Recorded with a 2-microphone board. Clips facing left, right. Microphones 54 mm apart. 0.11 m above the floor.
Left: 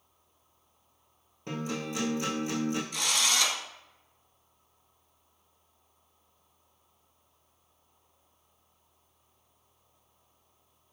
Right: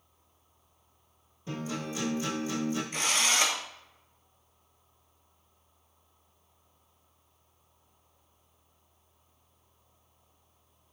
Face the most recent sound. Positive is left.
turn(degrees=-35)  # may be behind; listen again after turning